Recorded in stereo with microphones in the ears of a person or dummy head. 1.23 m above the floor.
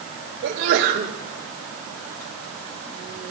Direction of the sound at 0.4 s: 70° right (ahead or behind).